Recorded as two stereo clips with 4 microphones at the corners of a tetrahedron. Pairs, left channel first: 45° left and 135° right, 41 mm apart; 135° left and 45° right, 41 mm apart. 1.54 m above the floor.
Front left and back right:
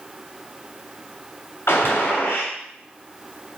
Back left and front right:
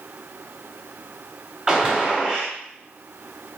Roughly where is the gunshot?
Ahead left.